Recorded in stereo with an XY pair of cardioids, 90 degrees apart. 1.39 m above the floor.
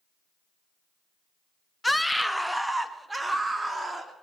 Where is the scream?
10° left, 1.0 m; by 4.1 s 20° right, 3 m.